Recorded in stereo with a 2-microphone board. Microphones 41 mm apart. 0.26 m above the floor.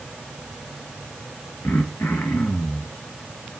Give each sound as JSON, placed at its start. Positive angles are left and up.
{"t": 1.6, "sound": "throat clearing", "side_deg": 70, "distance_m": 3.0}